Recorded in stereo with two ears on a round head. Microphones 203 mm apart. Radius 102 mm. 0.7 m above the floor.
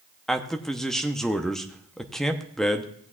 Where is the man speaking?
Centre (ahead or behind), 0.6 m.